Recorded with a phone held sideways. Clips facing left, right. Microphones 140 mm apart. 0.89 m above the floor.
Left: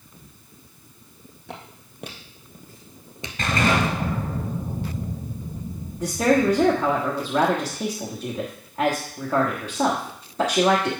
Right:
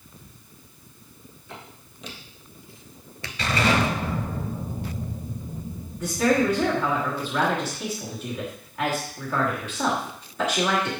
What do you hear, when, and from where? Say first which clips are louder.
1.5 s footsteps: left 4 dB; 65° left (ahead or behind), 2 m; by 4.0 s 30° right (ahead or behind), 0.9 m
3.4 s an explosion: left 1 dB; 50° left (ahead or behind), 3 m
6.0 s a woman speaking: left 2 dB; 35° left (ahead or behind), 1.4 m